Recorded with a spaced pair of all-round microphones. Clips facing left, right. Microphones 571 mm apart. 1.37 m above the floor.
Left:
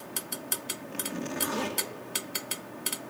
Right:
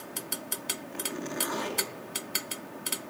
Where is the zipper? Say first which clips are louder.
Left 1 dB; 50° left (ahead or behind), 2.5 m.